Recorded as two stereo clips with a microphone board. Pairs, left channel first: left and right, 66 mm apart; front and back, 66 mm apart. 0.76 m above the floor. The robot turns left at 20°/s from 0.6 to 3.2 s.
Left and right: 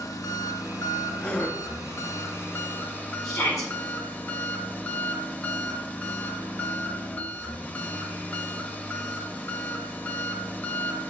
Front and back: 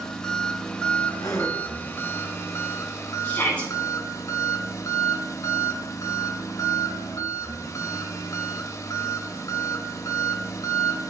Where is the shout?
70° left, 4 m.